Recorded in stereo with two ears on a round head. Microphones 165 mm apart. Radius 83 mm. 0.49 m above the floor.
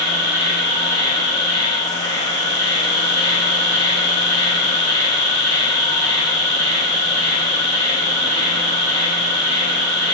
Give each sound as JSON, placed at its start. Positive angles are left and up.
{"t": 0.0, "sound": "an insect", "side_deg": 25, "distance_m": 1.2}